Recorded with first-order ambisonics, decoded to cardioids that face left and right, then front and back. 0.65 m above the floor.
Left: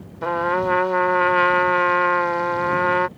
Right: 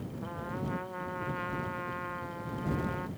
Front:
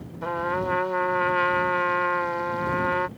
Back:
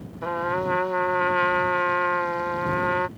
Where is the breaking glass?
I don't hear breaking glass.